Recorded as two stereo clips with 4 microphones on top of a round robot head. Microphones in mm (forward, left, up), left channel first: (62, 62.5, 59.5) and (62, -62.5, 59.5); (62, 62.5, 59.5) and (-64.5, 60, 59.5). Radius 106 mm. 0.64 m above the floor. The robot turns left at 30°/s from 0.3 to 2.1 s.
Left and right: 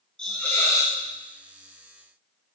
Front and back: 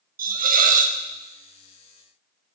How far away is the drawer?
No drawer in this recording.